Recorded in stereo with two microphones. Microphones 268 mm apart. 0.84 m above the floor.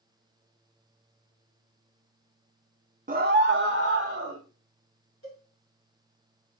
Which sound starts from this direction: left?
A cowbell, at 5.2 s.